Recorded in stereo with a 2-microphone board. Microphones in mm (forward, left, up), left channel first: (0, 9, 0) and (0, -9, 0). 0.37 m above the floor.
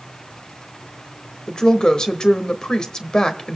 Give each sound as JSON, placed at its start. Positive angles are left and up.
{"t": 1.5, "sound": "a woman speaking", "side_deg": 50, "distance_m": 1.2}